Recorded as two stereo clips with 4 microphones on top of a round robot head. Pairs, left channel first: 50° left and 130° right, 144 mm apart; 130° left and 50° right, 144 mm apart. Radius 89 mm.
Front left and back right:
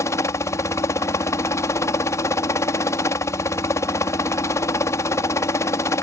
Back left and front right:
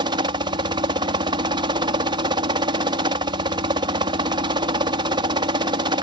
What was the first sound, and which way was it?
A helicopter, 10° right.